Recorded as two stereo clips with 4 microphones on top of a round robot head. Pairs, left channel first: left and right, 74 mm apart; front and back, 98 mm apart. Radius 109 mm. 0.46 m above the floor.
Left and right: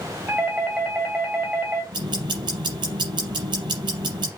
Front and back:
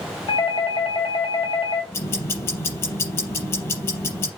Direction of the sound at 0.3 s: 25° right.